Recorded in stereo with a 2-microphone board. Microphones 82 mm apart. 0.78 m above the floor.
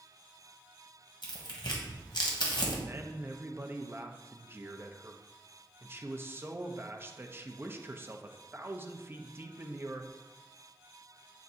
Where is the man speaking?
30° right (ahead or behind), 0.6 m.